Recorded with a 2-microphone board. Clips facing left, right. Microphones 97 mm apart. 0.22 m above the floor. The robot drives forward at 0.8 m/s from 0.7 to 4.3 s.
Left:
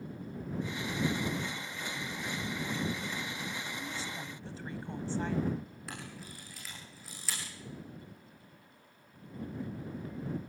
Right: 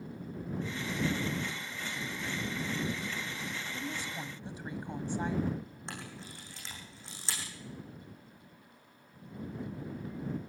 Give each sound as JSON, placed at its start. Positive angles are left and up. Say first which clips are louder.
{"t": 3.7, "sound": "a woman speaking", "louder": "right 1 dB", "side_deg": -15, "distance_m": 1.0}
{"t": 5.9, "sound": "a camera shutter", "louder": "right 1 dB", "side_deg": -30, "distance_m": 7.0}